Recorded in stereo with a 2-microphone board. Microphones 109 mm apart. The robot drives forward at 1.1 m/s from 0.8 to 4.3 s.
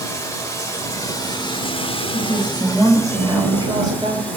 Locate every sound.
0.0 s running water: 30° left (ahead or behind), 1.5 m; by 4.4 s 15° left (ahead or behind), 2.5 m
2.1 s a woman speaking: 25° right (ahead or behind), 5 m; by 4.3 s 45° right (ahead or behind), 3 m